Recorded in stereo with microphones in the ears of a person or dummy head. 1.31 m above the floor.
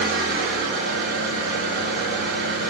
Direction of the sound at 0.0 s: 55° right (ahead or behind).